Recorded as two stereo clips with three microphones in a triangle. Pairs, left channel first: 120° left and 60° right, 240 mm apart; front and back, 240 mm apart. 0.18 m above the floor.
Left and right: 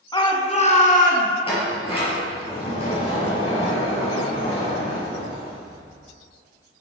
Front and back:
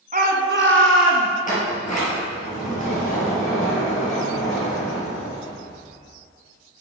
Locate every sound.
0.1 s a shout: 175° left, 1.2 m; by 1.3 s 170° left, 2.5 m
1.4 s a sliding door: 55° left, 3 m